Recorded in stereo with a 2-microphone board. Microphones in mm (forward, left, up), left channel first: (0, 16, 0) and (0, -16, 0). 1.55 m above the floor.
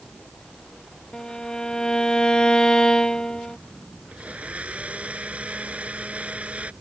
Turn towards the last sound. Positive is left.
turn(degrees=-50)  # may be behind; listen again after turning